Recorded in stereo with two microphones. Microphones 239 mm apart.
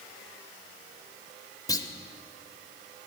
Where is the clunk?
15° left (ahead or behind), 0.6 m.